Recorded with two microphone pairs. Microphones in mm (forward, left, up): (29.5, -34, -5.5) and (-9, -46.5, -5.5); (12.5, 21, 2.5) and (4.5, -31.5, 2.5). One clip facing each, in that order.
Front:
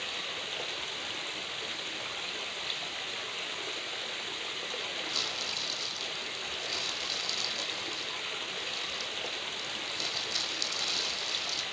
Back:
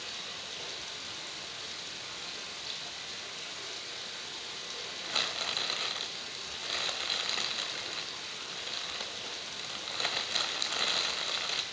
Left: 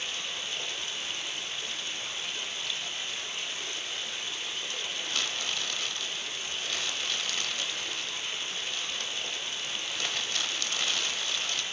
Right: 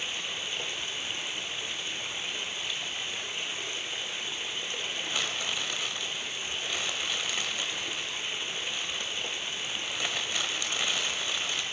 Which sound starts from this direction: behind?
Crumpling, at 5.0 s.